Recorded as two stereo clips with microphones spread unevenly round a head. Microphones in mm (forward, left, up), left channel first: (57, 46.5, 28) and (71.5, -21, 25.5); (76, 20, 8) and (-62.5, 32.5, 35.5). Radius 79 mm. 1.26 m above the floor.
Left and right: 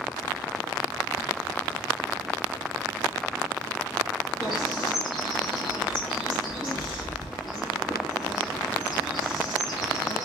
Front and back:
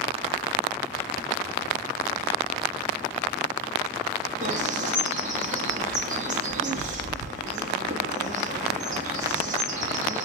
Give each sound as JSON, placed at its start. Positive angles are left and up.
{"t": 4.4, "sound": "a bird", "azimuth_deg": 155, "distance_m": 1.1}